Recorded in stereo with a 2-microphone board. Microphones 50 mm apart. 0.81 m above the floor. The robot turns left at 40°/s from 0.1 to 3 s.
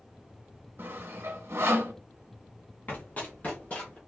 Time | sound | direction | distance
0.8 | sawing | 45° right (ahead or behind) | 0.8 m
2.9 | running footsteps | 40° left (ahead or behind) | 1.5 m